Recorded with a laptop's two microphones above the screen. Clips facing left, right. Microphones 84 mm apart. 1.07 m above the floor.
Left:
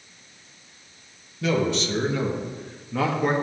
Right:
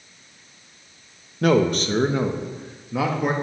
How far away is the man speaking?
About 1.1 m.